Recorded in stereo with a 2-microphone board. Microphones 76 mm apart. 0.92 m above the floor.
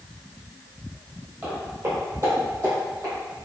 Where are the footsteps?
25° right (ahead or behind), 1.6 m; by 3.1 s 55° right (ahead or behind), 1.8 m.